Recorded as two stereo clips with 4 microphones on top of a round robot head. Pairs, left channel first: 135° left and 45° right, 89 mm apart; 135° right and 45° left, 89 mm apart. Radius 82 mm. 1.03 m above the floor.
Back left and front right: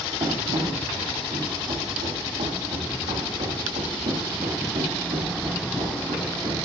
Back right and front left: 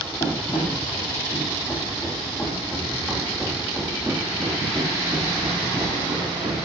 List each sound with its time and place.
0.2 s running footsteps: 90° right, 5 m; by 6.6 s 5° right, 5.5 m